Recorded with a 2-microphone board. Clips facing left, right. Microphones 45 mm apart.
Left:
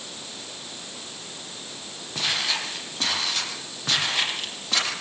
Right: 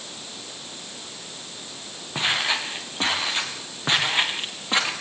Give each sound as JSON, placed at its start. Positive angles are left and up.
{"t": 2.1, "sound": "footsteps", "side_deg": -25, "distance_m": 7.0}